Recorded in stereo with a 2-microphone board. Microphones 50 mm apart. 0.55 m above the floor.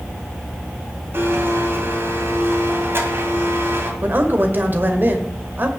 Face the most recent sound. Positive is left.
turn(degrees=-40)  # may be behind; listen again after turning